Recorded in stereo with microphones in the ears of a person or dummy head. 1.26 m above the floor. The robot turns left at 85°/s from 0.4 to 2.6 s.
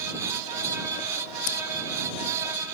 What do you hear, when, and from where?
1.5 s scissors: 70° left (ahead or behind); by 1.6 s 65° left (ahead or behind)